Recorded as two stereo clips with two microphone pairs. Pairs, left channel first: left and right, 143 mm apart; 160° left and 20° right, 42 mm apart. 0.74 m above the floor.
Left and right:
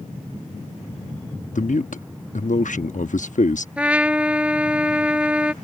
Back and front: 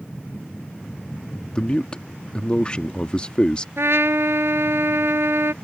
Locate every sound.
1.5 s a man speaking: 100° left
3.8 s a trumpet: 5° right